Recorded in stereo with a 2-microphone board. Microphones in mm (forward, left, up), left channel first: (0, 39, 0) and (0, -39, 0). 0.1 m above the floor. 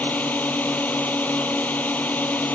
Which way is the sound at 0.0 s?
20° left (ahead or behind).